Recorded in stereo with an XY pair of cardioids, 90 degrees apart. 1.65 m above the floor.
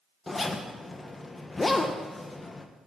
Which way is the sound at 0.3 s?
25° left.